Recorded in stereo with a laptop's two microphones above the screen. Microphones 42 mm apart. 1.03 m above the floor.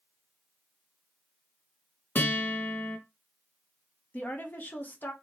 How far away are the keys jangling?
No keys jangling in this recording.